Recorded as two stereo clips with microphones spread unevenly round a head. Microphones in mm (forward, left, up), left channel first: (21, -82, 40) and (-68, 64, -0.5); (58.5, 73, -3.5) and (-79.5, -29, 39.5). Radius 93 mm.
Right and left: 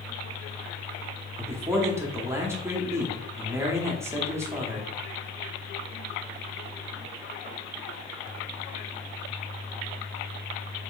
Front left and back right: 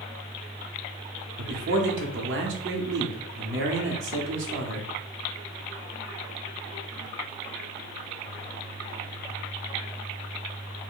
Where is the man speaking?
165° right, 0.7 m.